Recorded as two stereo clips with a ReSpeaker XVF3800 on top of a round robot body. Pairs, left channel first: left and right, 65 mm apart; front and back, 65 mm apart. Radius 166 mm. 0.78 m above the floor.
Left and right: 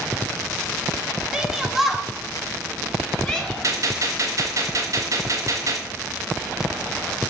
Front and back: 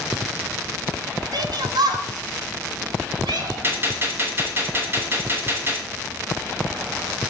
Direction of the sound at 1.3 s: 170° right.